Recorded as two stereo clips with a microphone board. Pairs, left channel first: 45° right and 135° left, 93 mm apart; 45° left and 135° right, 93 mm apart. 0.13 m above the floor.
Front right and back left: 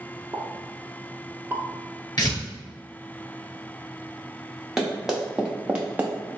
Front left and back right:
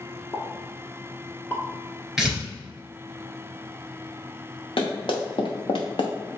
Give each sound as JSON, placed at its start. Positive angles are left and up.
{"t": 0.3, "sound": "a pop", "azimuth_deg": 85, "distance_m": 0.7}
{"t": 2.2, "sound": "tearing paper", "azimuth_deg": -50, "distance_m": 2.0}
{"t": 4.8, "sound": "running footsteps", "azimuth_deg": 50, "distance_m": 1.6}